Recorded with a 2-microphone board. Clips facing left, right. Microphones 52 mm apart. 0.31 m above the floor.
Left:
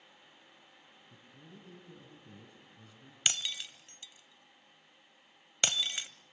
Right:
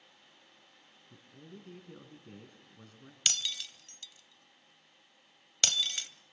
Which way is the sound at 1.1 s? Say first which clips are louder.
Right 4 dB; 50° right (ahead or behind).